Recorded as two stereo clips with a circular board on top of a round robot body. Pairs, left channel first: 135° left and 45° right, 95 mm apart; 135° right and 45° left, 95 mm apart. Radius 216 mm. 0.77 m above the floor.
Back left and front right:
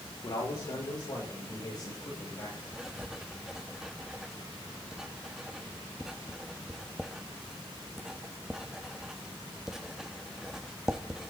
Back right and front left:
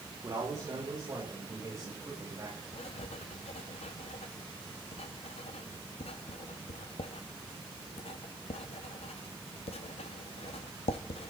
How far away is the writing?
About 0.6 m.